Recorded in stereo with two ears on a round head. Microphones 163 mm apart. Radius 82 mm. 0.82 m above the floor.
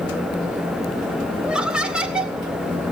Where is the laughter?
5° right (ahead or behind), 2 m.